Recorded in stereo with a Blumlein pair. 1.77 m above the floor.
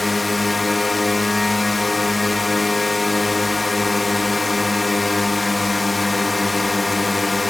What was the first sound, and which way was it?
A drone, 5° left.